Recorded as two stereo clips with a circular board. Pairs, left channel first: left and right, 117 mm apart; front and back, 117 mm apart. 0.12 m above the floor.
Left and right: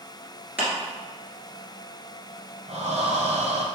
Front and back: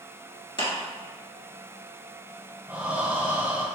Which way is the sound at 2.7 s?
105° right.